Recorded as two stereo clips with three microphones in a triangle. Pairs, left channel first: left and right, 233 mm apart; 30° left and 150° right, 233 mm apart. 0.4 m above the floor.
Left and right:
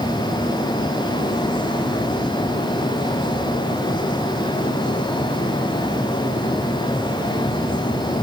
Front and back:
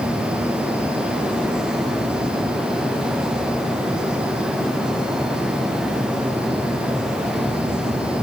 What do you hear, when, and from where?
Only background noise.